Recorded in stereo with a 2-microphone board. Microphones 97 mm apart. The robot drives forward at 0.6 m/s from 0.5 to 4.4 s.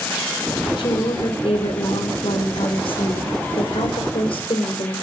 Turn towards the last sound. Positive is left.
turn(degrees=60)  # may be behind; listen again after turning